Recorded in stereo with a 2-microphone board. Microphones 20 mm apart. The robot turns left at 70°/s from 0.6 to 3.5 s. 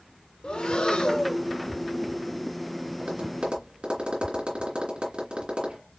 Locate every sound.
0.4 s breathing: 90° left, 0.8 m; by 1.4 s 35° left, 0.8 m
3.0 s tapping: 75° right (ahead or behind), 3 m; by 5.8 s 70° right (ahead or behind), 3 m